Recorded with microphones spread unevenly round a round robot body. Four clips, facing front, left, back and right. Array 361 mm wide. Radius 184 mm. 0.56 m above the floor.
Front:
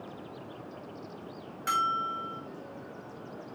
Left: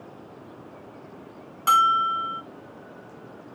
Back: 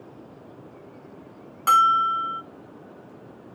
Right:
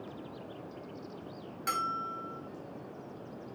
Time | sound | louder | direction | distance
1.7 | a bell | left 15 dB, back 11 dB | 175° left | 0.6 m